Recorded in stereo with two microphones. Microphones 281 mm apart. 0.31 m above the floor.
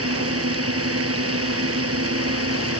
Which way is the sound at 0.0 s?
55° right (ahead or behind).